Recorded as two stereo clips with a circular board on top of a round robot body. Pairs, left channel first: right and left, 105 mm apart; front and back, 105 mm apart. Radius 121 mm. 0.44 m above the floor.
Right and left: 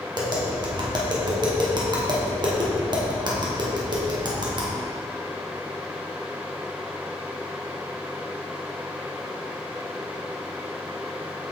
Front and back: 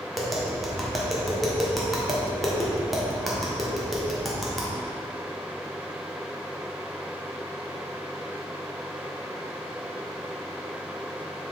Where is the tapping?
90° left, 1.6 m.